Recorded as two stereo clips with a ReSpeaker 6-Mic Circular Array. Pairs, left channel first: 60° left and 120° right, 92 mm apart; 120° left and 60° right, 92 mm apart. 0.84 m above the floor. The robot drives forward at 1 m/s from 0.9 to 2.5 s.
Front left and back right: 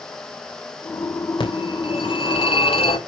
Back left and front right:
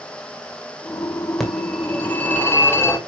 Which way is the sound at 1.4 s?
35° left.